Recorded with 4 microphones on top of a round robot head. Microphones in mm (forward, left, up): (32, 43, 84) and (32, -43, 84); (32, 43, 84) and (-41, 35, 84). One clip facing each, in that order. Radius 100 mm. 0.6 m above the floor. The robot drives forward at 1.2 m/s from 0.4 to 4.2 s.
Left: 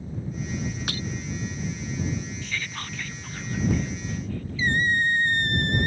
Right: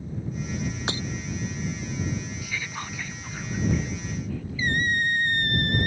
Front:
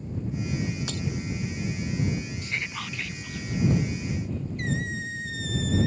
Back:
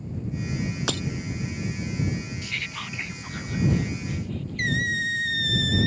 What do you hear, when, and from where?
0.9 s breaking glass: 160° right
2.4 s whispering: 15° right; by 4.8 s 175° right
4.6 s a squeak: 160° left